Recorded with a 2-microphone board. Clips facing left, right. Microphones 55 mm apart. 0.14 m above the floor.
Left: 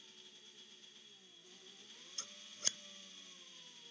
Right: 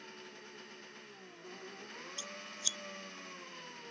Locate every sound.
0.0 s an engine running: 55° right (ahead or behind)
2.2 s scissors: 50° left (ahead or behind)